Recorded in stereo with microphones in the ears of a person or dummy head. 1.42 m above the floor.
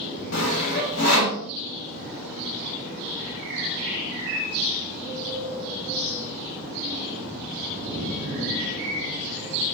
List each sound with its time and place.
0.3 s sawing: 80° left, 0.9 m